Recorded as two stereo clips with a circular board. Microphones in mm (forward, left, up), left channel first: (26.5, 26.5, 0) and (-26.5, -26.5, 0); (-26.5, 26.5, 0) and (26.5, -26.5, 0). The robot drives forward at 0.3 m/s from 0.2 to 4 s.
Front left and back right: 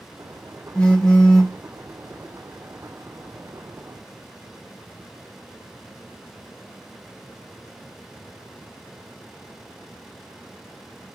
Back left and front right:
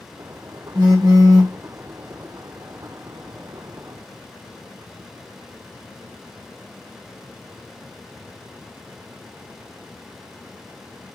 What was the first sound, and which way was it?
A phone buzzing, 25° right.